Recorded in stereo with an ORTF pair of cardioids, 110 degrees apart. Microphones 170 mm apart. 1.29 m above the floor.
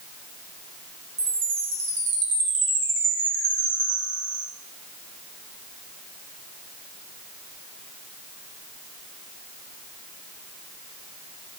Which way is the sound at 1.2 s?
65° right.